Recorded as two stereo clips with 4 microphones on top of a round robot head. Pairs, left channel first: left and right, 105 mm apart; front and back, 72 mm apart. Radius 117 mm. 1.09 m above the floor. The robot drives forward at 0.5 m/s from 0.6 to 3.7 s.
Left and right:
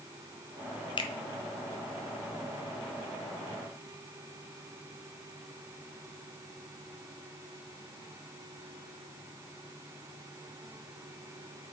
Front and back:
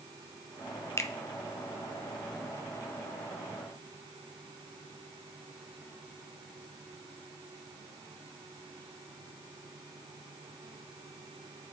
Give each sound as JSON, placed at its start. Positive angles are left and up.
{"t": 1.0, "sound": "a finger snap", "azimuth_deg": 50, "distance_m": 0.9}